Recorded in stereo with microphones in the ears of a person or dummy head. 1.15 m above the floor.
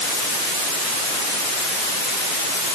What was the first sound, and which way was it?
Only background noise.